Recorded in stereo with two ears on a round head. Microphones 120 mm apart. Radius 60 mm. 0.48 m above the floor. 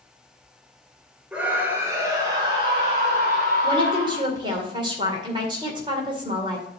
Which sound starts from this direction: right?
A woman speaking, at 3.6 s.